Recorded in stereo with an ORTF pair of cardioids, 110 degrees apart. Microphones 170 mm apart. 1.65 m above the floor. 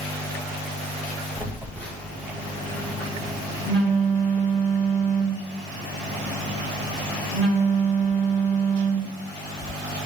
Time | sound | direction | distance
1.4 | a phone buzzing | 10° left | 3.5 m